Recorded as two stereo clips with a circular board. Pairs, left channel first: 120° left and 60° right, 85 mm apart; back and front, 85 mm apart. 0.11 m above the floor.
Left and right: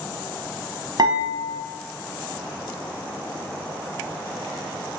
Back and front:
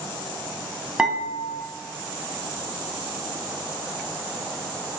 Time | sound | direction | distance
1.0 | dishes clattering | 75° right | 1.2 m